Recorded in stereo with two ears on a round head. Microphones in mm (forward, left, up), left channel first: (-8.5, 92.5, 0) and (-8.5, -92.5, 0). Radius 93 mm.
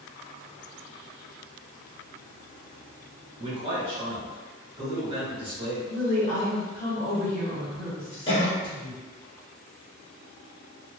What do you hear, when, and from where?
3.4 s a man speaking: 25° right (ahead or behind), 1.2 m
5.9 s a woman speaking: 25° left (ahead or behind), 1.1 m
8.3 s a cough: 25° left (ahead or behind), 0.8 m